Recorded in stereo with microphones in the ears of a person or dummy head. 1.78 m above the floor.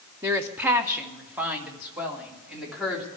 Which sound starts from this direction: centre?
A woman speaking, at 0.2 s.